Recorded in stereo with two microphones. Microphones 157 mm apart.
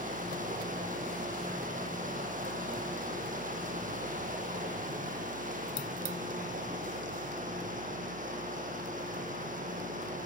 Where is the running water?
55° right (ahead or behind), 5 m.